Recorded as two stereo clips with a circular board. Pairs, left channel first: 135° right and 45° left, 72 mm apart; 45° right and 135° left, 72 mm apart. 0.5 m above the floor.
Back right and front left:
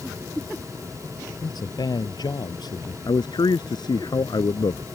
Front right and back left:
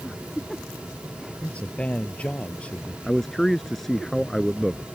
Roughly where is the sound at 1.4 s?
Behind right.